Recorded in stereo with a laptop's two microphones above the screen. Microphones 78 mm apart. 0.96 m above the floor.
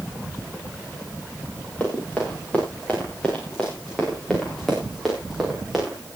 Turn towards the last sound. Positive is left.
turn(degrees=-5)  # may be behind; listen again after turning